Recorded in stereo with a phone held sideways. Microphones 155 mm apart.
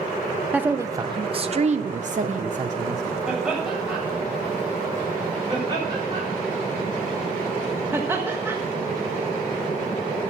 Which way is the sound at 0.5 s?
10° right (ahead or behind).